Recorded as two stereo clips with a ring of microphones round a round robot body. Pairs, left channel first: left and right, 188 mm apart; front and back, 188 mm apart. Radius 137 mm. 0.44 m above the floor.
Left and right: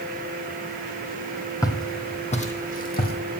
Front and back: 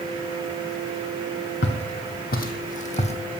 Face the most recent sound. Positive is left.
turn(degrees=55)